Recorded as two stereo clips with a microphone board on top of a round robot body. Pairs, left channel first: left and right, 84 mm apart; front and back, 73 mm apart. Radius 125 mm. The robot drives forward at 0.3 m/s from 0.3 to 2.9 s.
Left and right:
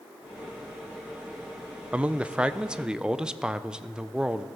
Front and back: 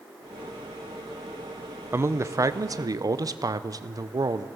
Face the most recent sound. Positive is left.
turn(degrees=-170)